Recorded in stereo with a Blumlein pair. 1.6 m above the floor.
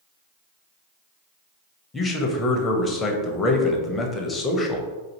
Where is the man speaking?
15° left, 0.7 m.